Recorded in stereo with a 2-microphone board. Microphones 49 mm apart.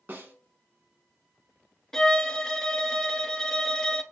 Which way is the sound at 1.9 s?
10° left (ahead or behind).